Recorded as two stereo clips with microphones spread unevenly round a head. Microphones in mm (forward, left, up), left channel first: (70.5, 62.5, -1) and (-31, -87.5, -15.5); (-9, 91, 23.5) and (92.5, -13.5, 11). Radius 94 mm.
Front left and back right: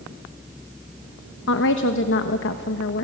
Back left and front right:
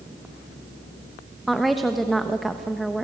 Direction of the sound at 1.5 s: 45° left.